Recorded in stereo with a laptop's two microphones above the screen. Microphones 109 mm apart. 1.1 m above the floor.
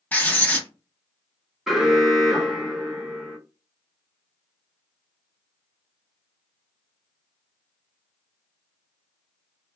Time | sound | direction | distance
0.1 | writing | 15° left (ahead or behind) | 0.8 m
1.7 | an alarm | 5° right (ahead or behind) | 0.9 m